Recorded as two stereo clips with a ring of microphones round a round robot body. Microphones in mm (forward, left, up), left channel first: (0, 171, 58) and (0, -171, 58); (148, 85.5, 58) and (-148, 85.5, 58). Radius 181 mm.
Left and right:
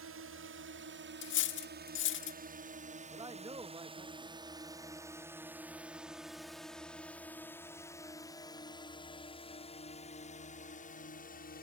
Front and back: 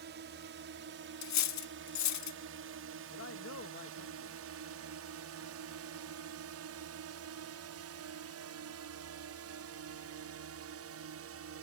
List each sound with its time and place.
0.0 s a drone: 130° right; by 11.6 s 150° left
1.2 s cutlery clinking: 30° left
3.1 s a man speaking: 20° right